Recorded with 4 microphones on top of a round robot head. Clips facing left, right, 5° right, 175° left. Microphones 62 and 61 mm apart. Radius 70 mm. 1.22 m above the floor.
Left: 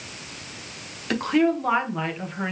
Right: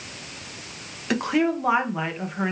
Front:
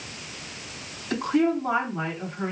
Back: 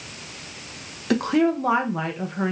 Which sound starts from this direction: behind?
A woman speaking, at 1.1 s.